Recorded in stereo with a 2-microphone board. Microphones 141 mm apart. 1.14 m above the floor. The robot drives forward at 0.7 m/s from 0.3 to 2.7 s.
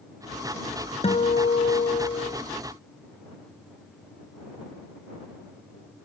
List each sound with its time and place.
1.0 s a guitar: 45° left (ahead or behind)